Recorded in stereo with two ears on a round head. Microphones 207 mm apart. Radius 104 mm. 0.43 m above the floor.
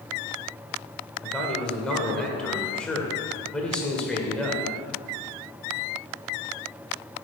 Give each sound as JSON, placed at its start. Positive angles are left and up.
{"t": 1.2, "sound": "a man speaking", "side_deg": 5, "distance_m": 1.7}